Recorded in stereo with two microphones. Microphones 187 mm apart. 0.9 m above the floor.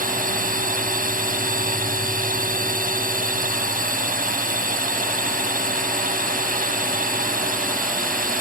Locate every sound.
0.0 s a drone: 50° right (ahead or behind)